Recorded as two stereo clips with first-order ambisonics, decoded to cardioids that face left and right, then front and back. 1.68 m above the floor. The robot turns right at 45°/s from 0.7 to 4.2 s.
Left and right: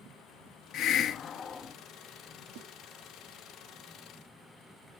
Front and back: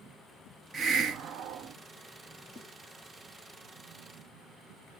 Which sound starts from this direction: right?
A snare drum, at 2.5 s.